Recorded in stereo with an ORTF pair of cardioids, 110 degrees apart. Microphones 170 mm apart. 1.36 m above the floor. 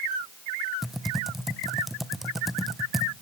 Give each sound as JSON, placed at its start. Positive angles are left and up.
{"t": 0.8, "sound": "typing on a keyboard", "azimuth_deg": 0, "distance_m": 0.8}